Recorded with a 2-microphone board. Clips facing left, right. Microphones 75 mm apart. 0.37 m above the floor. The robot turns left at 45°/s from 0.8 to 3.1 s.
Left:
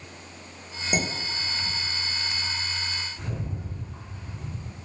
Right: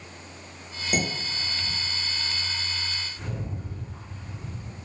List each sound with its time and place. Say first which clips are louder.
0.9 s dishes clattering: even; 10° left (ahead or behind), 0.7 m; by 1.7 s 35° left (ahead or behind), 0.7 m
3.2 s a rattle: even; 5° left (ahead or behind), 1.4 m